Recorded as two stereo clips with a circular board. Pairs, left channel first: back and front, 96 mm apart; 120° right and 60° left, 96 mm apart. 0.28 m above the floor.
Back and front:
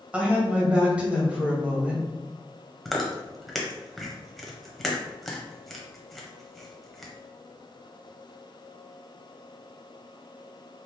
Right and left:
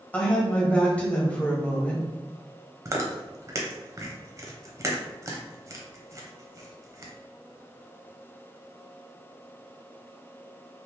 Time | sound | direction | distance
0.1 | a woman speaking | 60° right | 1.0 m
2.9 | chewing | 95° left | 0.7 m